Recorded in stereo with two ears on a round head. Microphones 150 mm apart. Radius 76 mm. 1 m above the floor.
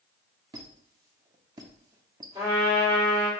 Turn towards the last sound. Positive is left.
turn(degrees=-25)  # may be behind; listen again after turning